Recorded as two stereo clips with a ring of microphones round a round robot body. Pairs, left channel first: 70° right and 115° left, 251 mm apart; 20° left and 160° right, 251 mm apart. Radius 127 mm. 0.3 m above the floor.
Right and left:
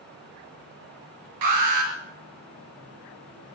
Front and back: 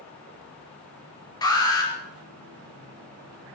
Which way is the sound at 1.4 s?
95° left.